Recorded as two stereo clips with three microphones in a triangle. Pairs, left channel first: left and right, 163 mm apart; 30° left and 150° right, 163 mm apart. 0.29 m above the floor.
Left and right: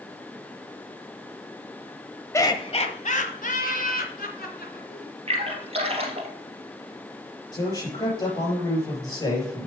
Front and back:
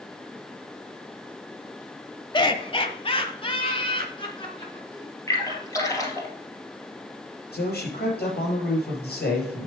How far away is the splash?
About 2.5 m.